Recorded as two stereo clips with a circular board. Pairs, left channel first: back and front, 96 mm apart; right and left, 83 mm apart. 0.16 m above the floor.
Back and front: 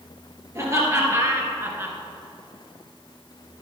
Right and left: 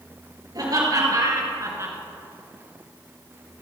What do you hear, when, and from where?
0.6 s laughter: 60° left, 3 m; by 2.0 s 55° left, 1.8 m